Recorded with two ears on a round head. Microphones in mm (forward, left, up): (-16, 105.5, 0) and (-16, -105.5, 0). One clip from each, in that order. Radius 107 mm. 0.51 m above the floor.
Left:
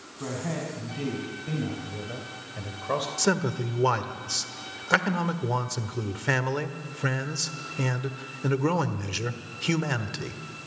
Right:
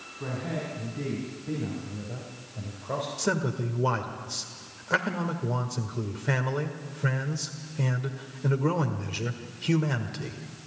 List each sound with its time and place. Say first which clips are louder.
0.2 s a man speaking: left 1 dB; 70° left (ahead or behind), 5.5 m; by 3.1 s 55° left (ahead or behind), 2.5 m
3.2 s a man speaking: left 3 dB; 25° left (ahead or behind), 1.3 m